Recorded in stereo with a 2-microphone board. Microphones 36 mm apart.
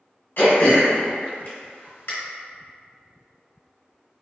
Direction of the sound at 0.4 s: 90° left.